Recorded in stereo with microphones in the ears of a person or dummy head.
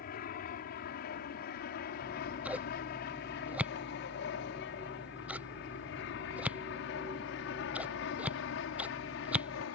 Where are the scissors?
10° right (ahead or behind).